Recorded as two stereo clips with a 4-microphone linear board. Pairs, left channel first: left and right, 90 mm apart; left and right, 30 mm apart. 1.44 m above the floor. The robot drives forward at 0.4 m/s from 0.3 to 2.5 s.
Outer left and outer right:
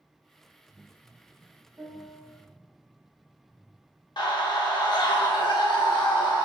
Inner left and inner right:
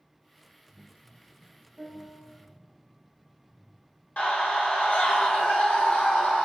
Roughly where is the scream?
Left.